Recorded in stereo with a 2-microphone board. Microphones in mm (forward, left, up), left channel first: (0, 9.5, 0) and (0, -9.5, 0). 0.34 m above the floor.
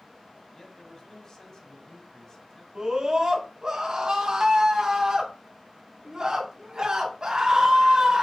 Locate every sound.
0.5 s a man speaking: 35° left (ahead or behind), 1.7 m
2.8 s a scream: 40° right (ahead or behind), 3 m